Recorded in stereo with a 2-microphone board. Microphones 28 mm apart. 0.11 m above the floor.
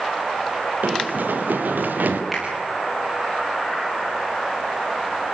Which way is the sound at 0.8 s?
85° right.